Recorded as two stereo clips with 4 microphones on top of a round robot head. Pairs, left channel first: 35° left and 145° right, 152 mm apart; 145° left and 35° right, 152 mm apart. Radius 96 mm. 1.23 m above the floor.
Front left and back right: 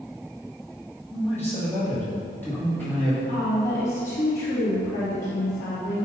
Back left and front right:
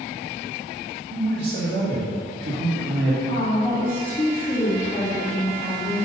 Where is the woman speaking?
70° left, 2 m.